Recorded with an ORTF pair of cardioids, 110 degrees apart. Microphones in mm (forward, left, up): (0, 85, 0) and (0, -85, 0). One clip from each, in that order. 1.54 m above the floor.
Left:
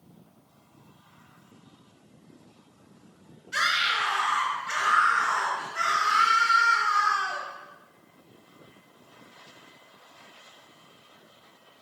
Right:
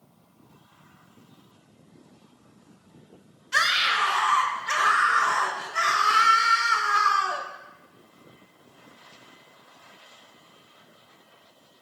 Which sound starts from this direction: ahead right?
A scream, at 3.5 s.